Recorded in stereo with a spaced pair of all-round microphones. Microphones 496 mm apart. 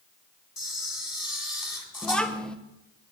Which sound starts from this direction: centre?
A child speaking, at 2.0 s.